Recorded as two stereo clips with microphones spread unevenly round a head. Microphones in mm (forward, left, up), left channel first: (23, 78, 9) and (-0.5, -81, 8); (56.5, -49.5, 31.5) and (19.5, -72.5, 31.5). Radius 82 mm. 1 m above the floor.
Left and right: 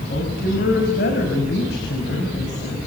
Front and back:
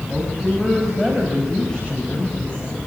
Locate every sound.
0.1 s a woman speaking: 120° left, 7 m; by 2.8 s 105° left, 6.5 m